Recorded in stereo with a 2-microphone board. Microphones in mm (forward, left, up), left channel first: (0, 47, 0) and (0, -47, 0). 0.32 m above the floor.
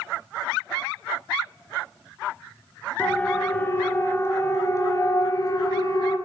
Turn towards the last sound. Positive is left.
turn(degrees=45)  # may be behind; listen again after turning